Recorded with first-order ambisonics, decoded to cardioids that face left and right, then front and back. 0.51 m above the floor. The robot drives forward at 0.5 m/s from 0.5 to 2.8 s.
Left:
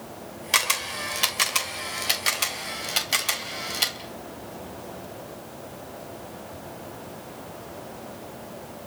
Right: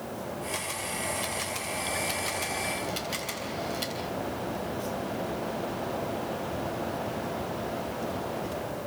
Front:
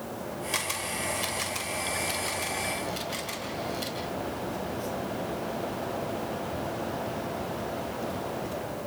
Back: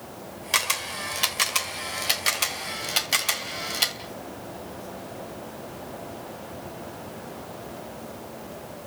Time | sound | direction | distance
0.5 | a camera shutter | 120° left | 2.0 m